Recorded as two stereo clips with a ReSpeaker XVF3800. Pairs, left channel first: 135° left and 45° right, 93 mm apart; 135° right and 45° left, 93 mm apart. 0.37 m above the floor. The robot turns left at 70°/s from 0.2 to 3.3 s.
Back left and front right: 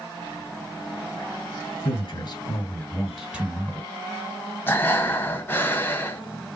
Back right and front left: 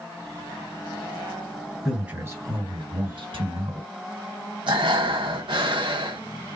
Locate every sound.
1.9 s a man speaking: 135° left, 3 m; by 3.9 s 35° left, 3 m
4.7 s breathing: 70° left, 1.0 m